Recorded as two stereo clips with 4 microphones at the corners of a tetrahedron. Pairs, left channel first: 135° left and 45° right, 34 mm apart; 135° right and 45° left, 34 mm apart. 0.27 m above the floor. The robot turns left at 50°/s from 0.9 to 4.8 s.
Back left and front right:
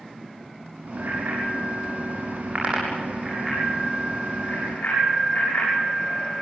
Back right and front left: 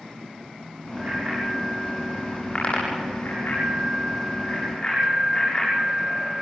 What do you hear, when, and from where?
1.0 s a bicycle bell: 10° right, 8 m; by 6.4 s 160° left, 8 m